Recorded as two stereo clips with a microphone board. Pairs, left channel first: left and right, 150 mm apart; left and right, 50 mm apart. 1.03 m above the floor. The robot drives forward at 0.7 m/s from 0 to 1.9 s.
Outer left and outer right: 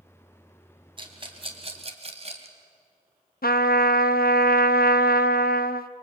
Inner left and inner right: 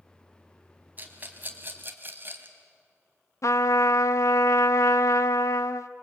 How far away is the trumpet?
About 0.6 m.